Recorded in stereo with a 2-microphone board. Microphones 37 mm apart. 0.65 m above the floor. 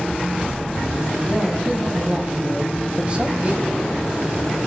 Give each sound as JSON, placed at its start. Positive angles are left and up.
{"t": 1.3, "sound": "a man speaking", "side_deg": -25, "distance_m": 6.0}